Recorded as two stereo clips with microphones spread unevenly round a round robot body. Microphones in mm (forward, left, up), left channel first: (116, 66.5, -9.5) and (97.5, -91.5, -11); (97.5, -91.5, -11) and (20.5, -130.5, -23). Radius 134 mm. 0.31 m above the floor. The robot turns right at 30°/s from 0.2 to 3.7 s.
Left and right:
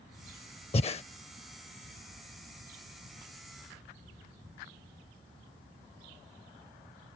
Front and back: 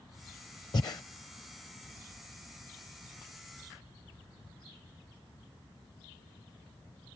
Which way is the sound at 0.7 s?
60° left.